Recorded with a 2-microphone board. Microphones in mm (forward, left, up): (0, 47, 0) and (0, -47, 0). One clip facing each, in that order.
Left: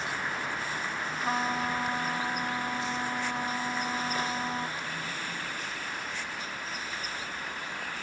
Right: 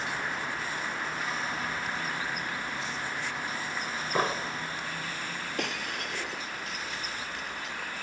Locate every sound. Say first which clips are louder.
1.2 s a trumpet: left 4 dB; 40° left (ahead or behind)
4.2 s an explosion: right 3 dB; 45° right (ahead or behind)
5.6 s breaking glass: right 3 dB; 70° right (ahead or behind)